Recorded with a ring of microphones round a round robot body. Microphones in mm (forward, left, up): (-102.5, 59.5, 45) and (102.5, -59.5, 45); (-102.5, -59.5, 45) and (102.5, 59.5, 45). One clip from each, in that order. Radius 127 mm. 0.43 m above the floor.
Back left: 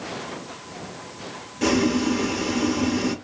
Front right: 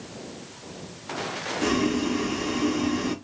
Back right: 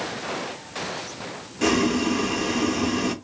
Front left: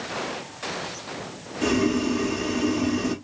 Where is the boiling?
145° right, 0.9 m.